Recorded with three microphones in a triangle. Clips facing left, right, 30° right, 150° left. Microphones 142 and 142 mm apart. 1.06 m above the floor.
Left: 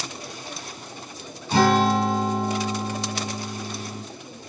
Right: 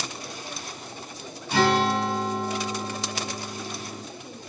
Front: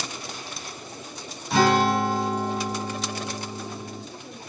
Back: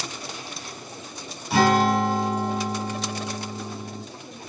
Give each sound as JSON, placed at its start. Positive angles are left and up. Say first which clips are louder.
{"t": 1.5, "sound": "a guitar", "louder": "left 3 dB, back 1 dB", "azimuth_deg": 65, "distance_m": 1.1}